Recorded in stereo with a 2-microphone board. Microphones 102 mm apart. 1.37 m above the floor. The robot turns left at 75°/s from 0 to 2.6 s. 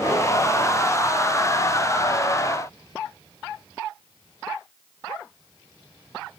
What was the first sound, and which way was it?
Only background noise.